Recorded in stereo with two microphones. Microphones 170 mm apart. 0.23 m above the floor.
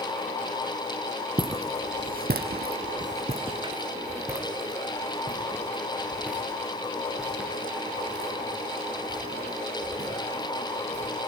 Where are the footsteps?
30° right (ahead or behind), 1.1 m; by 11.2 s centre (ahead or behind), 7.5 m.